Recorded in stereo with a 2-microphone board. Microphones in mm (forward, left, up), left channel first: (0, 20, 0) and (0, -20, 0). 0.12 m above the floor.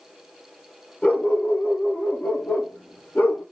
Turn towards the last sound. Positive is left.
turn(degrees=55)  # may be behind; listen again after turning